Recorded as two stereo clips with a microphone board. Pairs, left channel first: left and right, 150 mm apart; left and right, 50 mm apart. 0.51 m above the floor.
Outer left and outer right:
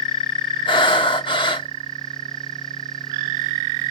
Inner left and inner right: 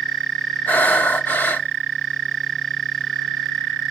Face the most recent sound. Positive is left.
turn(degrees=35)  # may be behind; listen again after turning